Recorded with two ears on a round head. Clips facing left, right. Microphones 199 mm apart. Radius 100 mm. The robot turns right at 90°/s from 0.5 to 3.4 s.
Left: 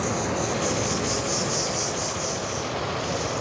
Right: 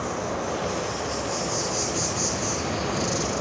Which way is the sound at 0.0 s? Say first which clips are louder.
Left 2 dB; 80° left.